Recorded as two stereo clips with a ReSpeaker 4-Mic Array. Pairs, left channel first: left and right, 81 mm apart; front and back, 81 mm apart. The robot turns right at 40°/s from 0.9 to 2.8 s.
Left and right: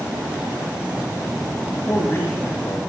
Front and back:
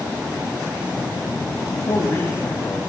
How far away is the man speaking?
About 5 m.